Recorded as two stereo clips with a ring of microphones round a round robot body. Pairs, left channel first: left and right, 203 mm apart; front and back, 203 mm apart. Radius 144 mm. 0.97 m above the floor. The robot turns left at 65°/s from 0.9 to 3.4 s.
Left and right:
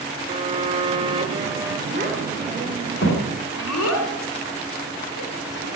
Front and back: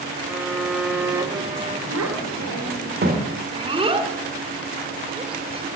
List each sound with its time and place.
0.3 s a violin: 100° right, 0.7 m; by 1.8 s 155° right, 0.7 m
1.9 s a child speaking: 145° right, 2.5 m; by 5.7 s 115° left, 2.5 m